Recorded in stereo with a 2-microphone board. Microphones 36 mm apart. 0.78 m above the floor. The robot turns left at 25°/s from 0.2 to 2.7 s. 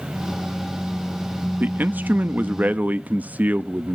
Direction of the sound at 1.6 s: 50° right (ahead or behind).